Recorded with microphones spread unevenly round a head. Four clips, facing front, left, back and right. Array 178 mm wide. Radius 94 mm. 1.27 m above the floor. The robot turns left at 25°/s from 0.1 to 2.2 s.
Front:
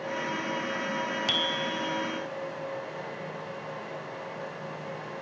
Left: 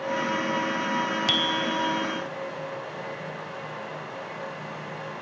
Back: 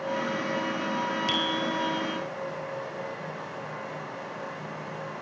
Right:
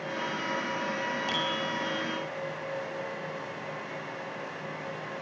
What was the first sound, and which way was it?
A bicycle bell, 90° left.